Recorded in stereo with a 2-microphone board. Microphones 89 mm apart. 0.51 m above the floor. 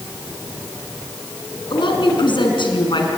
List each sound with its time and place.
1.7 s a woman speaking: 65° left (ahead or behind), 5.5 m